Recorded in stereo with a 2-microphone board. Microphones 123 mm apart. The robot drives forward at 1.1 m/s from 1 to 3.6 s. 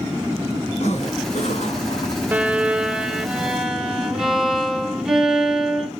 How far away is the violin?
About 0.6 m.